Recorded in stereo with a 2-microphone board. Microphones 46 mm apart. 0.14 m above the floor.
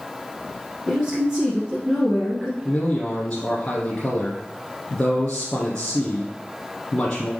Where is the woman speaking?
15° right (ahead or behind), 1.5 m.